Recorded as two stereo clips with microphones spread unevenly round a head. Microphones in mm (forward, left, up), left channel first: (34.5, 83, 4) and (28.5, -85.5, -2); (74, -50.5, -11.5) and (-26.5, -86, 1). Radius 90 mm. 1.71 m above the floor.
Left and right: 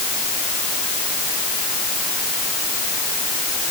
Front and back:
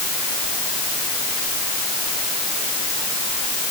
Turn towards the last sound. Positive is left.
No sound to turn to.